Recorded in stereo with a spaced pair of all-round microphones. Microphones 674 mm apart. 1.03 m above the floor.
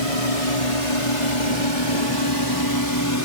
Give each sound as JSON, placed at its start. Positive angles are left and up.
{"t": 0.0, "sound": "a drone", "side_deg": 60}